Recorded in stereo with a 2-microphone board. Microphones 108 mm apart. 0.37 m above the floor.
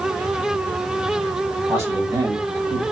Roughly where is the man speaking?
Right.